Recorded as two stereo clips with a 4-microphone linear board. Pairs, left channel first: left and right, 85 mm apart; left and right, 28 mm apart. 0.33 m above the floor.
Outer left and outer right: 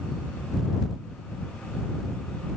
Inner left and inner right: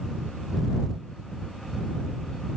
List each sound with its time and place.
Only background noise.